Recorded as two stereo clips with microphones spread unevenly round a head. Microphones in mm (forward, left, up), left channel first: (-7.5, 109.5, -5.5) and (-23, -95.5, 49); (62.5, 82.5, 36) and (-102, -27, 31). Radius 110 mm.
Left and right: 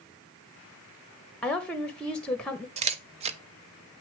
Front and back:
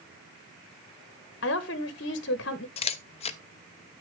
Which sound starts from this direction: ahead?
A woman speaking, at 1.4 s.